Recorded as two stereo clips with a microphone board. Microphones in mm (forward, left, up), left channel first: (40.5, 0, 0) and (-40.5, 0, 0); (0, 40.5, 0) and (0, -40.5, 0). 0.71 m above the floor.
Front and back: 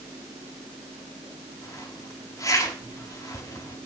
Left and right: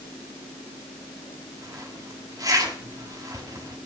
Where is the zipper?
50° right, 5.5 m.